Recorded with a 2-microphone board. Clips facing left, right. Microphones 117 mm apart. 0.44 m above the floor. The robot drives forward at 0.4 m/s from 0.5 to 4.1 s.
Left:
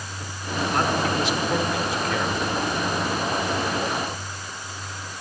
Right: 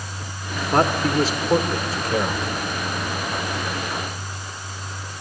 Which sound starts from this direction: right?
A man speaking, at 0.7 s.